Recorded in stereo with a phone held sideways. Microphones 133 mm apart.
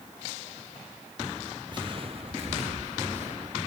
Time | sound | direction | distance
1.7 | footsteps | 35° right (ahead or behind) | 1.6 m